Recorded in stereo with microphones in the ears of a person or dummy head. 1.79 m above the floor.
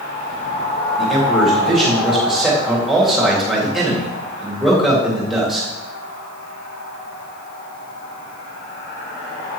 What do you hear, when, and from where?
1.0 s a man speaking: centre (ahead or behind), 2.0 m